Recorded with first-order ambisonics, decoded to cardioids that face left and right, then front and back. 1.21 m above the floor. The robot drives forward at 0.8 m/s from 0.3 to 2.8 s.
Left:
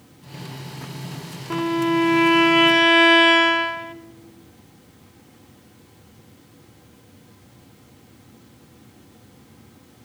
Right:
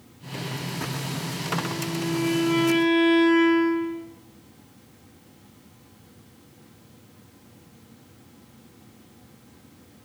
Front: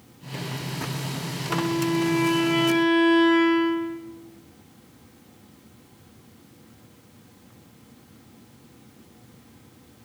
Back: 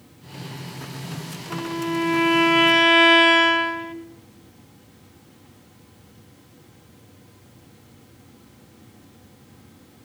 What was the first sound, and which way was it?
A violin, 80° left.